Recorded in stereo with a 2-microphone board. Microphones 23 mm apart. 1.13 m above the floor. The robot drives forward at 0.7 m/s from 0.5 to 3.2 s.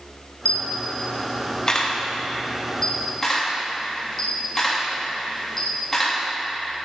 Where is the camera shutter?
60° left (ahead or behind), 0.7 m; by 6.2 s 20° left (ahead or behind), 2.0 m.